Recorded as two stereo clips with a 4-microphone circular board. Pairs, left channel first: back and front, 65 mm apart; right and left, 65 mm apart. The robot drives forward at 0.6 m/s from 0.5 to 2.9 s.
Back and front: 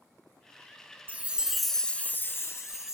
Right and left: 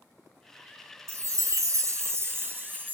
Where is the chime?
55° left, 0.7 m; by 2.9 s 150° left, 1.0 m.